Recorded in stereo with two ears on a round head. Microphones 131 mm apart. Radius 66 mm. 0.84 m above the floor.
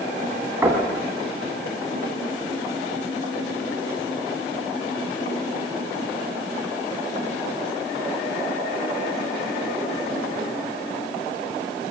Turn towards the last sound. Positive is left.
turn(degrees=-15)  # may be behind; listen again after turning